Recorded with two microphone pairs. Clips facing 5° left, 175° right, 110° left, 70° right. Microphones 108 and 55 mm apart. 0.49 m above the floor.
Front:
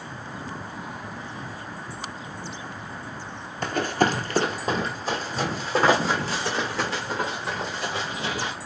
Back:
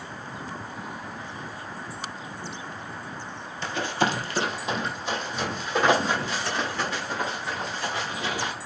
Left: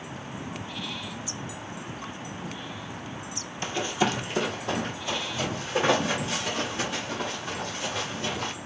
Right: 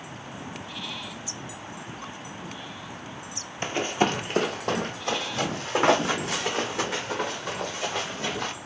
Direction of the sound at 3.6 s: 15° right.